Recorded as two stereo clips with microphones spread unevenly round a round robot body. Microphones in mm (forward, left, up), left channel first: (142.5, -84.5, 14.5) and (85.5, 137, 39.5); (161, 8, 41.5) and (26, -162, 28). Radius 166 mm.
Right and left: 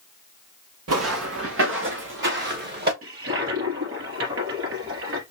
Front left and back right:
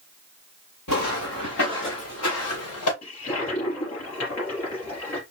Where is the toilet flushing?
80° left, 3 m.